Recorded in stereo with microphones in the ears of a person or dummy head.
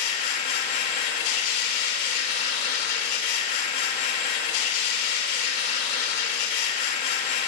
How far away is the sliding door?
No sliding door in this recording.